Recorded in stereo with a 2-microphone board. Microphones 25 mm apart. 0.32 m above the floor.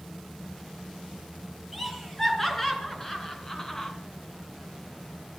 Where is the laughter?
5° left (ahead or behind), 4 m; by 3.9 s 20° left (ahead or behind), 2.5 m.